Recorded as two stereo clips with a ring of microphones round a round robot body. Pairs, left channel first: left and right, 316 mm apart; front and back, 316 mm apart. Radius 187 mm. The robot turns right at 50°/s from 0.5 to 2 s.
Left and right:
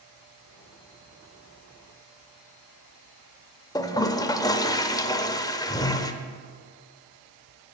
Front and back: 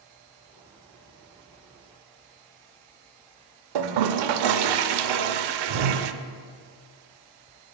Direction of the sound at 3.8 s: 170° left.